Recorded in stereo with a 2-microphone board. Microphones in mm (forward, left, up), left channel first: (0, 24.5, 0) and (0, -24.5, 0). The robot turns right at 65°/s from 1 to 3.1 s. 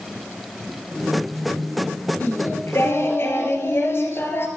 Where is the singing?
50° left, 2.5 m; by 4.5 s 110° left, 2.5 m.